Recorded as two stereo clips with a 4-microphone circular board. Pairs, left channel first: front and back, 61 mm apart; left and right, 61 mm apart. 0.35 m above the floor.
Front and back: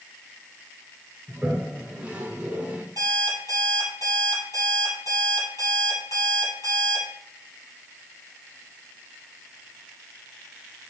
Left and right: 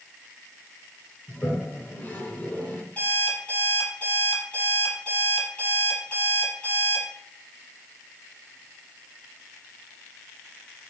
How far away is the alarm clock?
About 4 m.